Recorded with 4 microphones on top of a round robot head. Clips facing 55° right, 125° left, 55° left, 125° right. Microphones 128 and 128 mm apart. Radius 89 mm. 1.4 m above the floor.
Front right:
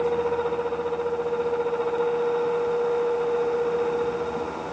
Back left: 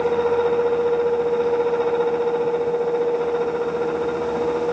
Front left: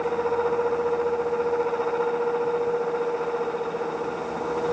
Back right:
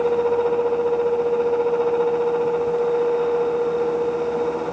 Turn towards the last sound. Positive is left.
No sound to turn to.